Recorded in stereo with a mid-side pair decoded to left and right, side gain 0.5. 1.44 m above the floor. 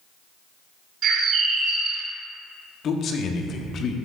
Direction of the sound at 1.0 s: 60° right.